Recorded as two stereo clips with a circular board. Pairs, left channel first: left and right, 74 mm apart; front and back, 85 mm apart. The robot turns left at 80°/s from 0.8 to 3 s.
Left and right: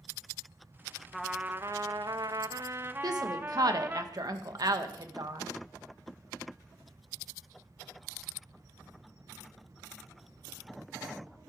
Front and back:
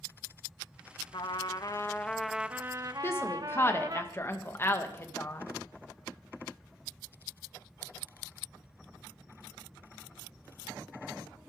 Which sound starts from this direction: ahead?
A trumpet, at 1.1 s.